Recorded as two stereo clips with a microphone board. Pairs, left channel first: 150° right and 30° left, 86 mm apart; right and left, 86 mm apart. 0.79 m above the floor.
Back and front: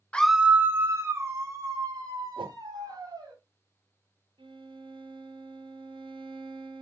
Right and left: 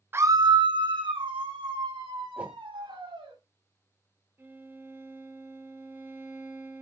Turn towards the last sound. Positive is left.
turn(degrees=25)